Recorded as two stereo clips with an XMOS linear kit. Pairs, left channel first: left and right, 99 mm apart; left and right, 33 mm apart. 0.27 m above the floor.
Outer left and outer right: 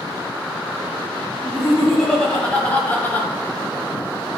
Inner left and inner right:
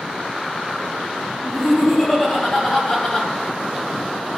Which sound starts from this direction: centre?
Laughter, at 1.4 s.